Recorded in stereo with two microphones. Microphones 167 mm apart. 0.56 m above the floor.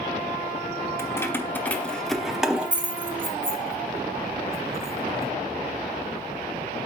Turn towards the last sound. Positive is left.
turn(degrees=-15)  # may be behind; listen again after turning